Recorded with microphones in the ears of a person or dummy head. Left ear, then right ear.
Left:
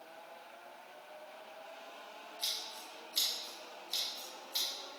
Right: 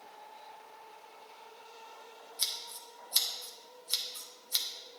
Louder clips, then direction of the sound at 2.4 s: Right 3 dB; 55° right (ahead or behind).